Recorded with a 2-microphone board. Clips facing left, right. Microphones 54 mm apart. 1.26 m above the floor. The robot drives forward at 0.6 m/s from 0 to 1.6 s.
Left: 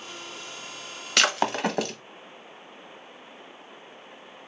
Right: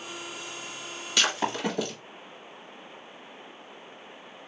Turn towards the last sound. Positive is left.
turn(degrees=65)  # may be behind; listen again after turning